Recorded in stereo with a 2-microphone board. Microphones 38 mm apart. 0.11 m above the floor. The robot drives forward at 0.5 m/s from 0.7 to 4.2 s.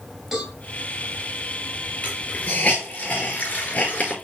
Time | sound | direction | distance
0.3 | a cowbell | 10° right (ahead or behind) | 5.5 m
2.0 | a hiss | 35° left (ahead or behind) | 5.5 m